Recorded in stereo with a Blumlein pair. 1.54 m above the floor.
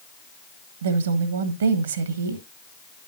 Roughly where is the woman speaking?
Ahead right.